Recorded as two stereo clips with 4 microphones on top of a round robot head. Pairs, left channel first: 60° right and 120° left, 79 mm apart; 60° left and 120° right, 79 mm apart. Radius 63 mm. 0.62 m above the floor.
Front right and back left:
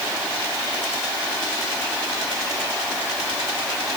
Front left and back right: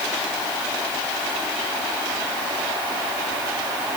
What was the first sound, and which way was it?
Only background noise.